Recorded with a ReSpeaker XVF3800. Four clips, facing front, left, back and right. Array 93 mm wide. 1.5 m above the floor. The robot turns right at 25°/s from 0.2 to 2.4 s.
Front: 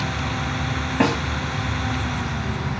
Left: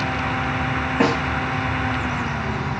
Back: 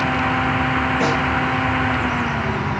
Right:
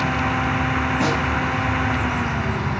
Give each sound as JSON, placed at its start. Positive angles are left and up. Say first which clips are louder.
{"t": 1.0, "sound": "a snare drum", "louder": "left 5 dB, front 3 dB", "azimuth_deg": 45, "distance_m": 2.5}